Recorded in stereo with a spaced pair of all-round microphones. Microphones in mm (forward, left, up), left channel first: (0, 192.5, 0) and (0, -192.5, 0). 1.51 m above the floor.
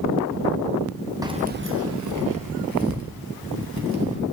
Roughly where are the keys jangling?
Centre.